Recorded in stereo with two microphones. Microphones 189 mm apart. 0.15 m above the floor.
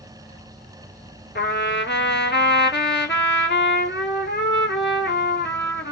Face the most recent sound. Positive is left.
turn(degrees=60)  # may be behind; listen again after turning